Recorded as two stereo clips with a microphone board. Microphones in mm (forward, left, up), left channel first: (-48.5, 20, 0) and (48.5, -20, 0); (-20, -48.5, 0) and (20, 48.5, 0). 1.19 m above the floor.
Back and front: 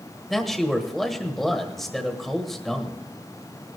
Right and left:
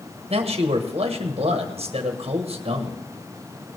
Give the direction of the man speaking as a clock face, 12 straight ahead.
10 o'clock.